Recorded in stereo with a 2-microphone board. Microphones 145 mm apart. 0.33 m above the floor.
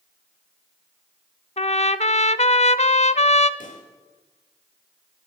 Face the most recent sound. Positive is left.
turn(degrees=65)  # may be behind; listen again after turning